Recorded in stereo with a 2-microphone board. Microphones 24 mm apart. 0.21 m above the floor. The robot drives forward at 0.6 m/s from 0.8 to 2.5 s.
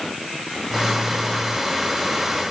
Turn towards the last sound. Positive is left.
No sound to turn to.